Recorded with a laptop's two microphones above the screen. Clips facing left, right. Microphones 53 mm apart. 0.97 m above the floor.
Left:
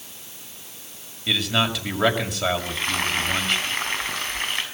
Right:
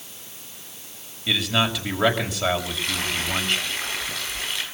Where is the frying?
45° left (ahead or behind), 5.5 m.